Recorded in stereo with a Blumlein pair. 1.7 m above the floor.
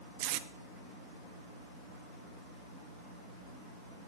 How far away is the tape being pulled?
About 0.6 m.